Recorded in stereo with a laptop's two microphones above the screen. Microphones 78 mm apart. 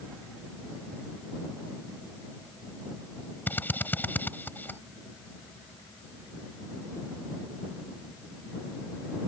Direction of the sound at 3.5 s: 20° left (ahead or behind).